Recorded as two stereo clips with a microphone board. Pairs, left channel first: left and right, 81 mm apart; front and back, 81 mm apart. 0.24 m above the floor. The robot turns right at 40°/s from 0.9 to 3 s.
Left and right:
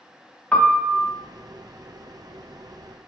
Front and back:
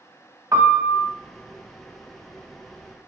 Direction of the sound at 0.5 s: 155° left.